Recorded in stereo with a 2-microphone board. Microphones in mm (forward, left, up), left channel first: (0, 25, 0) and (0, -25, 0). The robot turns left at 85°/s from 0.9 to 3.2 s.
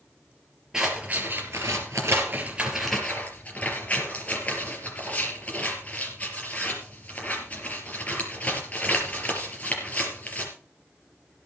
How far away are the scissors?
About 4.5 m.